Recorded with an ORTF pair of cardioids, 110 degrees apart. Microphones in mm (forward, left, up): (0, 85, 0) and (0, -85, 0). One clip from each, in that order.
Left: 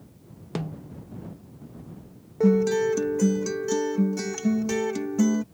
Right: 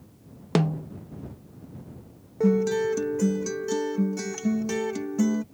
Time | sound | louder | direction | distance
0.6 | a snare drum | right 9 dB | 45° right | ?
2.4 | a guitar | left 2 dB | 5° left | ?